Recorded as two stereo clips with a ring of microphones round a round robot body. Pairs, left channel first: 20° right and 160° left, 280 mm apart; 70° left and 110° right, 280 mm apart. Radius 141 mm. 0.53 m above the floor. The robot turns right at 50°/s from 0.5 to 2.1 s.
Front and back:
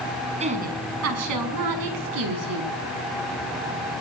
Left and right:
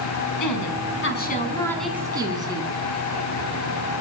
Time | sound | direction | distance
0.4 | a woman speaking | 90° left | 6 m